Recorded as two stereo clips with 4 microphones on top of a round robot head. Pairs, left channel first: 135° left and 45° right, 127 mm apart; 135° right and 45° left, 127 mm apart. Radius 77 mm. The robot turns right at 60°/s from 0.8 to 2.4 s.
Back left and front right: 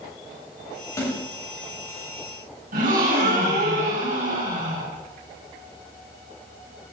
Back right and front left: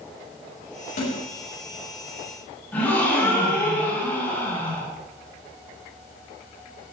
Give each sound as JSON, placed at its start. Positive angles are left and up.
{"t": 1.0, "sound": "a snare drum", "azimuth_deg": -160, "distance_m": 8.0}
{"t": 2.7, "sound": "a gasp", "azimuth_deg": -60, "distance_m": 6.5}